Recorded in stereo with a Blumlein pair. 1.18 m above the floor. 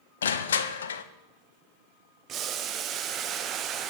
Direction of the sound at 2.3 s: 30° right.